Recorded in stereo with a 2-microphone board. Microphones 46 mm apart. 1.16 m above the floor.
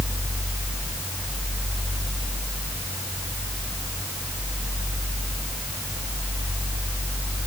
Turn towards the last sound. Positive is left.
No sound to turn to.